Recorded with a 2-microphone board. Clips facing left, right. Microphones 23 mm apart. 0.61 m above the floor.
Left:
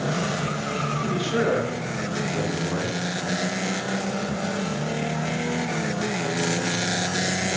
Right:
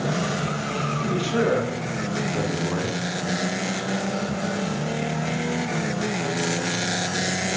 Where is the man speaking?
25° right (ahead or behind), 6 m.